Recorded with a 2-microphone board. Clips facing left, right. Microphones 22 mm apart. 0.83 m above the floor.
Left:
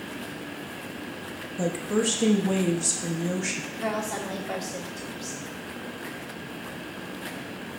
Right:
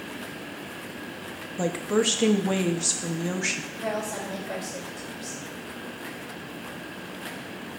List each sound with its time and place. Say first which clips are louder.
1.6 s a woman speaking: right 2 dB; 25° right (ahead or behind), 0.8 m
3.7 s a woman speaking: left 1 dB; 70° left (ahead or behind), 2.5 m